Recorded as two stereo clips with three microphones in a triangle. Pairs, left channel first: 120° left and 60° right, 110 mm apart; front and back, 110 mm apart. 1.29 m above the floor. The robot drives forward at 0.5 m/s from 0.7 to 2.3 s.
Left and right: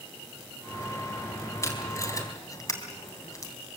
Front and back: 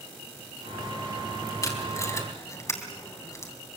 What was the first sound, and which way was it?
Tape being pulled, 60° left.